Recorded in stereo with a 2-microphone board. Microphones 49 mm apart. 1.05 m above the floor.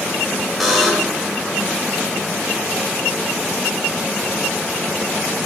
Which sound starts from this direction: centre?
A buzzer, at 0.6 s.